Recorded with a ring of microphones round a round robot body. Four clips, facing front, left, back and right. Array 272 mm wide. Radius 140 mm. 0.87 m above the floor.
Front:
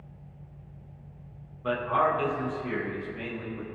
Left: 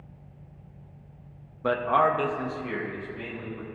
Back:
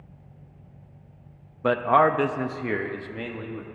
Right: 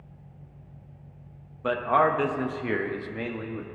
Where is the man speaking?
170° left, 0.7 m; by 3.7 s 120° right, 1.2 m.